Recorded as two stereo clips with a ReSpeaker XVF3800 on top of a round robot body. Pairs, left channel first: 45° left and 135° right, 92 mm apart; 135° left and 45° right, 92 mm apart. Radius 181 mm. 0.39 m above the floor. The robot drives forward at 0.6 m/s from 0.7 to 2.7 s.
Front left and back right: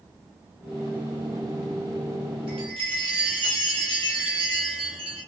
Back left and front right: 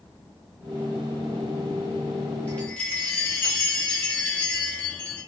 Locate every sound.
2.5 s a chime: 150° right, 3 m